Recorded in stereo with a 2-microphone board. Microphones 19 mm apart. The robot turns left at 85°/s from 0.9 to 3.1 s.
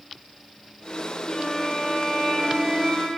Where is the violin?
55° left, 2 m; by 3.1 s 95° right, 2 m.